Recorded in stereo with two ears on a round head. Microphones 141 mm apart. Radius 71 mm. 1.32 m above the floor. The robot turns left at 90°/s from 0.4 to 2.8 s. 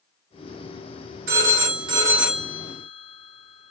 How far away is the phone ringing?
About 1.2 m.